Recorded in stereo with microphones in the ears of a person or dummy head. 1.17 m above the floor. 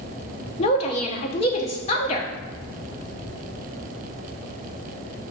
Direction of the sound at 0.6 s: 35° left (ahead or behind).